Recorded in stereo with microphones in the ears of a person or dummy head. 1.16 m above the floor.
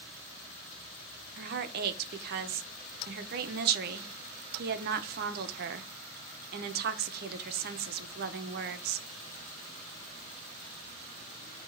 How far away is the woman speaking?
About 0.9 m.